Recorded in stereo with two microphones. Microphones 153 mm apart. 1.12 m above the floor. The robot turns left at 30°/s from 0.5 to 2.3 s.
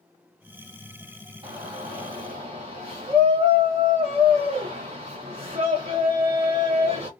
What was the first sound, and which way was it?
A shout, 35° right (ahead or behind).